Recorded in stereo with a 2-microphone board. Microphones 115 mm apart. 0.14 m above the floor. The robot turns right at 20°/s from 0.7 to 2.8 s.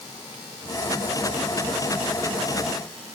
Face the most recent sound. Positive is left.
No sound to turn to.